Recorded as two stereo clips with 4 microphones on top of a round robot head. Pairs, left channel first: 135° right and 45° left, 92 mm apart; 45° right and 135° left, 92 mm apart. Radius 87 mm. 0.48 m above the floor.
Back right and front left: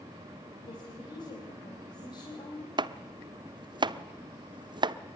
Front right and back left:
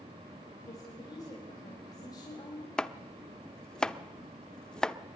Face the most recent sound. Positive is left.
turn(degrees=35)